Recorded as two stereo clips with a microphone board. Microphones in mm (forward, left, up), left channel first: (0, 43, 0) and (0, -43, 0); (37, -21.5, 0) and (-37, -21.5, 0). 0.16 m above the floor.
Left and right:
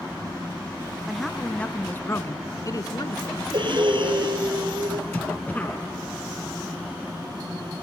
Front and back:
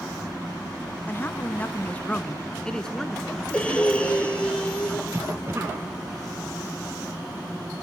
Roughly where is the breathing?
Right.